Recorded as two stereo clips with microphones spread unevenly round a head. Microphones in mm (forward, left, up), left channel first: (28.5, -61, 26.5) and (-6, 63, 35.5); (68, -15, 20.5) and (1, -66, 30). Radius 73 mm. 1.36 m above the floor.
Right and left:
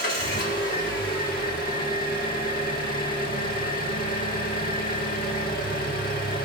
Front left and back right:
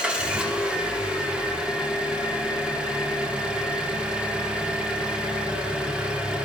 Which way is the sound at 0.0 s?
65° right.